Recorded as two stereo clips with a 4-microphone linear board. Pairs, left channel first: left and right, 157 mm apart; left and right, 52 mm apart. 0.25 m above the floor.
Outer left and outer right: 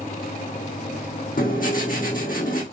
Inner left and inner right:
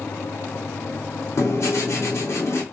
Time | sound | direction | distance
1.4 | writing | 65° left (ahead or behind) | 1.9 m